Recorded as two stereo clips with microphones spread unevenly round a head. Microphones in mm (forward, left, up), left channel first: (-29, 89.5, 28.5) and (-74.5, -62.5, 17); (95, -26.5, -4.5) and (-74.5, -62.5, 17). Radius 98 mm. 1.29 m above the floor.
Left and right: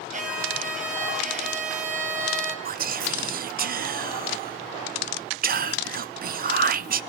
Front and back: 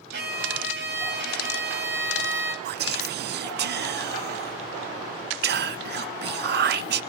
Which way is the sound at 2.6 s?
135° right.